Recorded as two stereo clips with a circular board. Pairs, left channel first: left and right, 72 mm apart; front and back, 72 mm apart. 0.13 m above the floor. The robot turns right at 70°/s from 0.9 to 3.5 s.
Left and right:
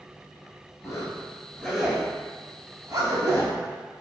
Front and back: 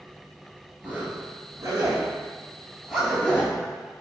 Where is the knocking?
No knocking in this recording.